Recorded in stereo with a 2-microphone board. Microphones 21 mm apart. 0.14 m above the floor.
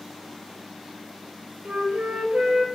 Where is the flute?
75° right (ahead or behind), 5.5 m.